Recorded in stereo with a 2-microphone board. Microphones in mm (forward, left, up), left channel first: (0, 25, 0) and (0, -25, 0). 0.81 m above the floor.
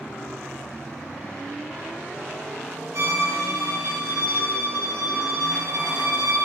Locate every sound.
2.9 s a violin: 80° right, 4.5 m